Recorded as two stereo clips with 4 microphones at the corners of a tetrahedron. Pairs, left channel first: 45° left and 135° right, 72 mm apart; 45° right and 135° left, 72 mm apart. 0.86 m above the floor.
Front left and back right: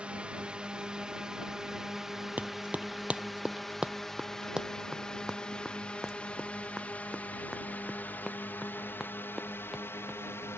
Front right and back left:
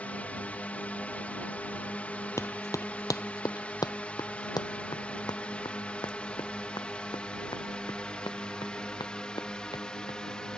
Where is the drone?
85° right; by 10.6 s 25° left.